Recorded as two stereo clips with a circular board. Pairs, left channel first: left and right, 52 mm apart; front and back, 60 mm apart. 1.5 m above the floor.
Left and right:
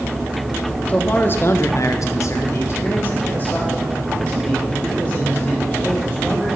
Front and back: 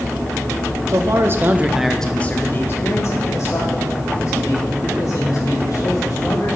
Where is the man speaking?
150° left, 1.1 m; by 6.6 s 20° left, 4.5 m.